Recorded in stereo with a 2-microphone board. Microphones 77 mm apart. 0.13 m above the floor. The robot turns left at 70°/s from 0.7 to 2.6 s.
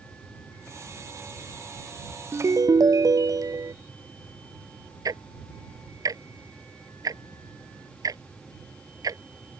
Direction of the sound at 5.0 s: 55° right (ahead or behind).